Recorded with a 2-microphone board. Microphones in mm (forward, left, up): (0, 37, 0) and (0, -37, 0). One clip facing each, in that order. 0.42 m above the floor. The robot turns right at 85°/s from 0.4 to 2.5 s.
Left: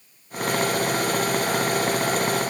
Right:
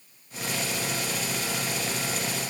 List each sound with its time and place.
Only background noise.